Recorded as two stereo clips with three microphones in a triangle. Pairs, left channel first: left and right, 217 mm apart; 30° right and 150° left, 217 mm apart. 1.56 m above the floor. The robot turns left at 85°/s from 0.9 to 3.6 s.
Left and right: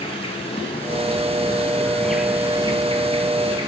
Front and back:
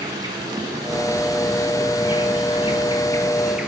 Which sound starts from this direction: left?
An insect, at 0.0 s.